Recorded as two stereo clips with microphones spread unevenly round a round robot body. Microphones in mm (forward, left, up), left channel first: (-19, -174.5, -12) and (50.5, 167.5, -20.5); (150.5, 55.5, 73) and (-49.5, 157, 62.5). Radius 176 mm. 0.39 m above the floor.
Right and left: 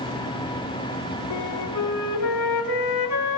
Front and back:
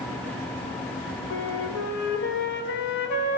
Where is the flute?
75° right, 3 m.